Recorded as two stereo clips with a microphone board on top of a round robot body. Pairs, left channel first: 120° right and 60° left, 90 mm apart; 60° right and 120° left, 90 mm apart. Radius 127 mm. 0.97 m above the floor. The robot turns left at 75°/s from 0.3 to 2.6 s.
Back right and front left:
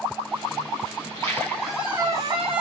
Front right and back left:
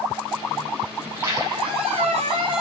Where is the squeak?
160° right, 1.2 m; by 2.6 s 80° left, 1.2 m.